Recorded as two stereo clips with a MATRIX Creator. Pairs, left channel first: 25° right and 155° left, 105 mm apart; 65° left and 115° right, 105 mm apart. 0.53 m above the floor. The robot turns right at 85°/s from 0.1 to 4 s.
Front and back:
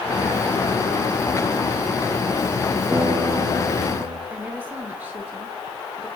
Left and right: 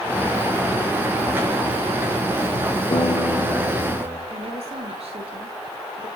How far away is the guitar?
About 8.5 m.